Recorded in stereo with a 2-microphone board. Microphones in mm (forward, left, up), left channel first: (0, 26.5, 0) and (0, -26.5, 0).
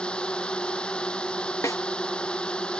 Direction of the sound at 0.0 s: 20° left (ahead or behind).